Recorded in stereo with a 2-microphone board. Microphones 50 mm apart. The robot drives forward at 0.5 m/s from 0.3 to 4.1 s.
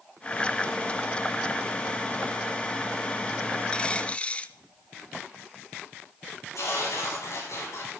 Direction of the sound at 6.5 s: 80° left.